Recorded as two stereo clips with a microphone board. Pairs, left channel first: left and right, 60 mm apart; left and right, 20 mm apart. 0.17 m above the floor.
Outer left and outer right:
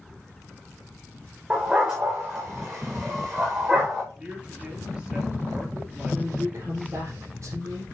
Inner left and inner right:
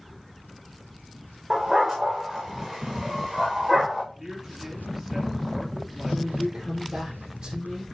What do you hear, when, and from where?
1.5 s a dog barking: 15° right (ahead or behind), 3.5 m
4.1 s a man speaking: 20° right (ahead or behind), 4 m
6.1 s a woman speaking: 45° right (ahead or behind), 4.5 m